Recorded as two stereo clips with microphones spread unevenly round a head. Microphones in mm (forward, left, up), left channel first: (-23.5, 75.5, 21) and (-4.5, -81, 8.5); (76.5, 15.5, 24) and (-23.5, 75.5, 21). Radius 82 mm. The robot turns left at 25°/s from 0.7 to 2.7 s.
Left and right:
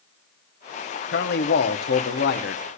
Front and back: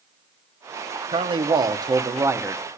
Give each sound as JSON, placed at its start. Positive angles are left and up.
{"t": 1.1, "sound": "a man speaking", "azimuth_deg": 115, "distance_m": 0.9}